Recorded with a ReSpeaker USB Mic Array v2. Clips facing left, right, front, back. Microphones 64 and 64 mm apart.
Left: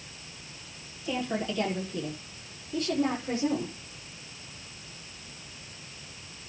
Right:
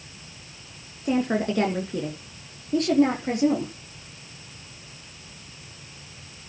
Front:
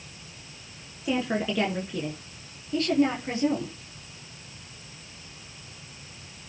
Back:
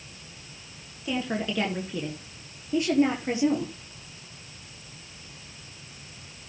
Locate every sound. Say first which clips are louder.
1.1 s a woman speaking: right 7 dB, front 2 dB; 70° right, 2 m; by 3.7 s 115° right, 4.5 m